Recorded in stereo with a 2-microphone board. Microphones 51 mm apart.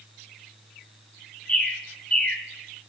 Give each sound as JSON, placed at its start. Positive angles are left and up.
{"t": 1.5, "sound": "a bird", "side_deg": 25, "distance_m": 0.7}